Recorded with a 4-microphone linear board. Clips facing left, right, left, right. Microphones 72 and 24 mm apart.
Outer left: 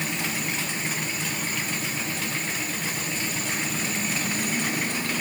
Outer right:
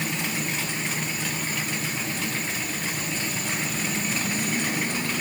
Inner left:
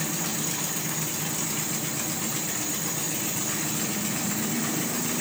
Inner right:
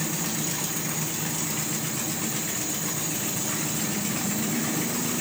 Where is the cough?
I don't hear a cough.